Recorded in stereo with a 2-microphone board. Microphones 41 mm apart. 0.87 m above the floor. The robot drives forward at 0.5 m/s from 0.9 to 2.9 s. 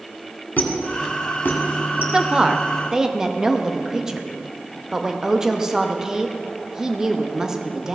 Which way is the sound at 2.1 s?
20° right (ahead or behind).